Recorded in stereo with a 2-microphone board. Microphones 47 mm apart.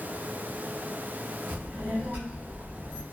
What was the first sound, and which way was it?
A child speaking, 55° right (ahead or behind).